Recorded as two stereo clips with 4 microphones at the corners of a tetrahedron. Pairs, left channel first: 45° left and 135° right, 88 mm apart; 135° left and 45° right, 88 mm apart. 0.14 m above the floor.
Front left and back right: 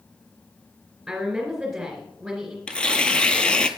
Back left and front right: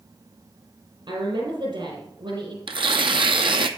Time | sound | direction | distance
1.1 | a woman speaking | 55° right | 2.5 m
2.7 | tearing paper | 35° right | 0.6 m